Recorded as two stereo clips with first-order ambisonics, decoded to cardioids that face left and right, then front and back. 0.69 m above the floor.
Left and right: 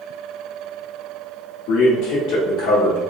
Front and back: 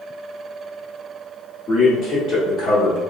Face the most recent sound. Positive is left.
turn(degrees=35)